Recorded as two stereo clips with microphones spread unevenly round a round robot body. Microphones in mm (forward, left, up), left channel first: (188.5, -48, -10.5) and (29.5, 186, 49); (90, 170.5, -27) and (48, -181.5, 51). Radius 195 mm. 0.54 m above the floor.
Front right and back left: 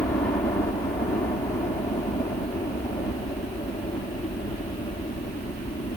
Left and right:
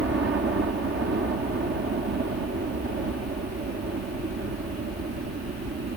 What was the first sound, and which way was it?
A helicopter, 75° right.